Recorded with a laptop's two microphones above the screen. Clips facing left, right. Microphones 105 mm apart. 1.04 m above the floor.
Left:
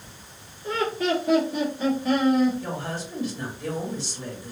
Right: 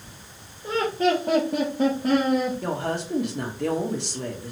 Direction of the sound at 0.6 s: 20° right (ahead or behind).